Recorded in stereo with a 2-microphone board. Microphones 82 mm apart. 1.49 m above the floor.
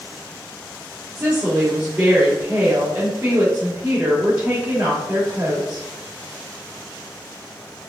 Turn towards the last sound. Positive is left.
turn(degrees=-20)  # may be behind; listen again after turning